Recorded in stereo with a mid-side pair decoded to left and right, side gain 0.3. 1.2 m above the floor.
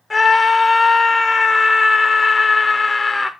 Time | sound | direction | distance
0.1 | a scream | 25° left | 0.6 m